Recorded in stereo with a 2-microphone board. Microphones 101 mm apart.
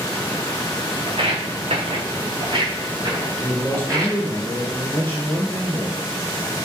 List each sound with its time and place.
1.1 s footsteps: 60° right (ahead or behind), 0.8 m; by 4.2 s 35° right (ahead or behind), 1.6 m
3.4 s a man speaking: 20° left (ahead or behind), 1.2 m